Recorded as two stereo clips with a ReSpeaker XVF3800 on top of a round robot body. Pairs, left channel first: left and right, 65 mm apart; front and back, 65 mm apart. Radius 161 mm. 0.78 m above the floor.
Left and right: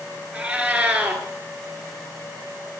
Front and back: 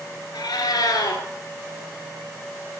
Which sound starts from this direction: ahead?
A cat meowing, at 0.3 s.